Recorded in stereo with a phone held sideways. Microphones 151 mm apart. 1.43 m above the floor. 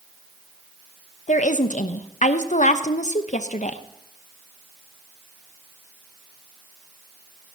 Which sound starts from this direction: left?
A woman speaking, at 1.3 s.